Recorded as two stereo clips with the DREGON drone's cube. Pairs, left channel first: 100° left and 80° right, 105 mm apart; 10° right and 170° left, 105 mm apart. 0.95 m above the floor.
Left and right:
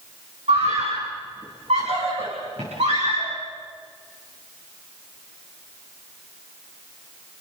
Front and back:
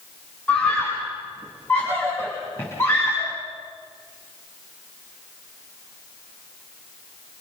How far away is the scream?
About 7 m.